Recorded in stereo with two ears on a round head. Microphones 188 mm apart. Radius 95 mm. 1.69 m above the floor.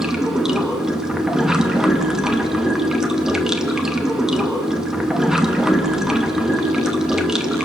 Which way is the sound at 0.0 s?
5° right (ahead or behind).